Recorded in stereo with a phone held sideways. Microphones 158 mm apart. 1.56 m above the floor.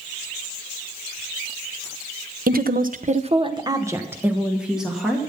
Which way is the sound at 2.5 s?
65° right (ahead or behind).